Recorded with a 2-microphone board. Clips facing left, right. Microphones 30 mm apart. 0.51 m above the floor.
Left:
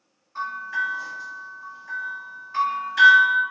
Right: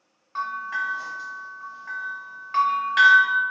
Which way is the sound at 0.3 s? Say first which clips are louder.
Even; 65° right (ahead or behind).